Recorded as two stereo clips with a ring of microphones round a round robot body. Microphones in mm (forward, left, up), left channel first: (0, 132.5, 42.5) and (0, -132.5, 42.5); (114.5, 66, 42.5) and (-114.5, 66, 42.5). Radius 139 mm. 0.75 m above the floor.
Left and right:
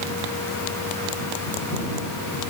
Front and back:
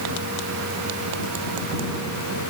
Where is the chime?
No chime in this recording.